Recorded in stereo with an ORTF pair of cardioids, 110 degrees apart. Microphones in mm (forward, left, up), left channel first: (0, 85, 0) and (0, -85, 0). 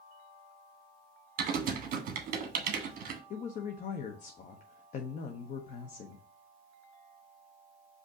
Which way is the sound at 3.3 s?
50° left.